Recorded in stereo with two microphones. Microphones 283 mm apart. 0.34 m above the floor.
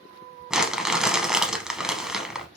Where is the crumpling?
Centre (ahead or behind), 0.7 m.